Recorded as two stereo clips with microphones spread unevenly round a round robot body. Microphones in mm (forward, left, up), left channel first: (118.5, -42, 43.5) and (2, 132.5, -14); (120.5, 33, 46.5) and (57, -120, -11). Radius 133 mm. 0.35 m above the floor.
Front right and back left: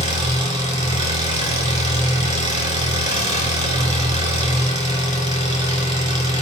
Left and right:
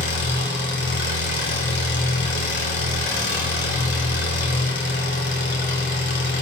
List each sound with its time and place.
0.0 s an engine running: 55° left, 3 m